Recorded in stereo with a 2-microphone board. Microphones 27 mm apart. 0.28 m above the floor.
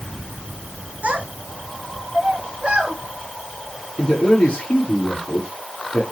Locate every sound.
1.0 s a child speaking: 65° right (ahead or behind), 2.0 m; by 3.0 s 45° right (ahead or behind), 2.5 m
4.0 s a man speaking: 35° left (ahead or behind), 6.5 m